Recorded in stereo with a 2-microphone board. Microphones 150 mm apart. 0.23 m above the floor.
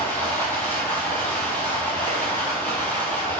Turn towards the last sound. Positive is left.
turn(degrees=10)  # may be behind; listen again after turning